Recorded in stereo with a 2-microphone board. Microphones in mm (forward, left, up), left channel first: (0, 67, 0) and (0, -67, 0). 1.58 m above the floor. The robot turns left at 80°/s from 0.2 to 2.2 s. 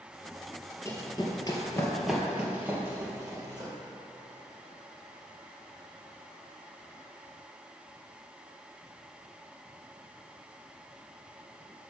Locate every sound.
0.8 s running footsteps: 20° left (ahead or behind), 1.8 m; by 3.7 s 30° right (ahead or behind), 2.5 m